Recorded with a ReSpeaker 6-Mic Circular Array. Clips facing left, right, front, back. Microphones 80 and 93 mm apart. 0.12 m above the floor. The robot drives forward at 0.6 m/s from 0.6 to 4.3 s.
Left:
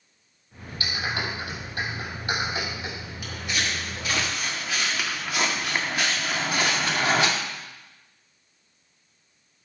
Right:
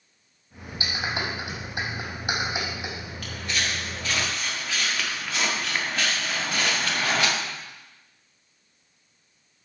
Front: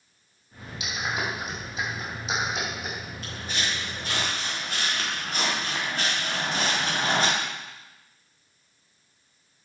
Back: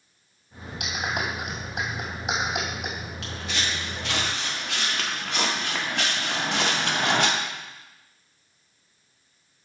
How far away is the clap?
About 3 m.